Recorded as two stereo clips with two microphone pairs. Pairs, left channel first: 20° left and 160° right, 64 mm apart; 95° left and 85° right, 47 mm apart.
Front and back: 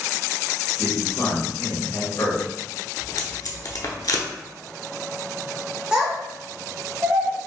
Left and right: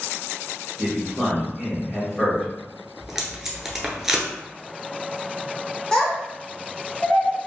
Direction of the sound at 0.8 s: 20° left.